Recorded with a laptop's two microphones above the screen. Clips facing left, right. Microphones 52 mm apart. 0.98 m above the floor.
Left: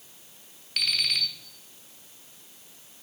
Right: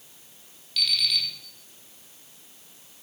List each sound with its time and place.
0.8 s an alarm clock: 45° left (ahead or behind), 1.0 m